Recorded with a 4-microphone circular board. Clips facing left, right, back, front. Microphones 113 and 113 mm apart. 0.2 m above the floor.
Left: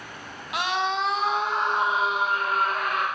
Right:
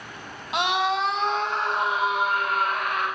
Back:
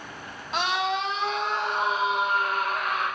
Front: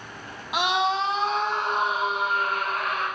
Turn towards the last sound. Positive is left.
turn(degrees=35)